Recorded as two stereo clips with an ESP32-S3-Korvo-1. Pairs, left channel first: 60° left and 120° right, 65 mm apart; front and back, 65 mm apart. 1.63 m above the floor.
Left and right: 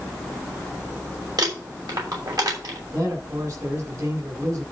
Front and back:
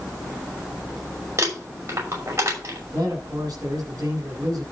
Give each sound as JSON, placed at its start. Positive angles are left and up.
{"t": 1.4, "sound": "crumpling", "azimuth_deg": -135, "distance_m": 6.0}
{"t": 2.9, "sound": "a man speaking", "azimuth_deg": -150, "distance_m": 8.0}